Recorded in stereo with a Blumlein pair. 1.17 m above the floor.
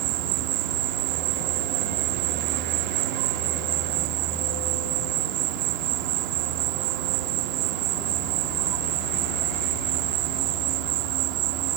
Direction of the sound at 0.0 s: 40° right.